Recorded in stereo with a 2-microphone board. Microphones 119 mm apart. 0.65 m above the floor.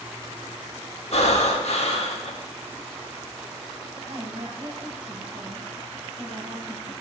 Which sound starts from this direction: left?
Breathing, at 1.1 s.